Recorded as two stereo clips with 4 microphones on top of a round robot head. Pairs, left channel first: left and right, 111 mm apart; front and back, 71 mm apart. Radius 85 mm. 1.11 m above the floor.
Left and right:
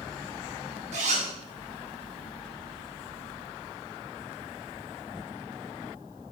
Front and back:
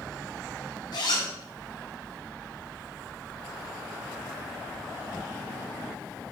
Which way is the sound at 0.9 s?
55° right.